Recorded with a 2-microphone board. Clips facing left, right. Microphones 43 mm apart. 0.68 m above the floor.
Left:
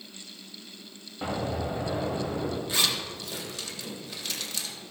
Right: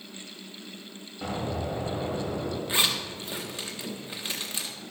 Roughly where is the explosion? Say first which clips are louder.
Left 1 dB; centre.